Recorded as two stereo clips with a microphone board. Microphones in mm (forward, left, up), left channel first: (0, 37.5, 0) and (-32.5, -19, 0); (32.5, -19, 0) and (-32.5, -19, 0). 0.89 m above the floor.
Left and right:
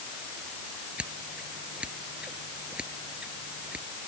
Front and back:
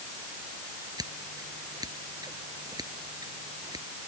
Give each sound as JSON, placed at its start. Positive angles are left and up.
{"t": 1.0, "sound": "scissors", "azimuth_deg": 165}